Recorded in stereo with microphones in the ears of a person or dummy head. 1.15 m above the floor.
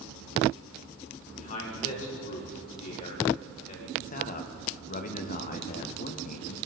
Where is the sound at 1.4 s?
40° left (ahead or behind), 3.5 m.